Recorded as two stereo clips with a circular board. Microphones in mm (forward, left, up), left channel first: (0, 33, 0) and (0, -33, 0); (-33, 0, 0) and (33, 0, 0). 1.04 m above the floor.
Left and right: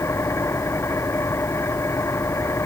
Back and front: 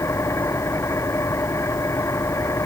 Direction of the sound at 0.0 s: 135° left.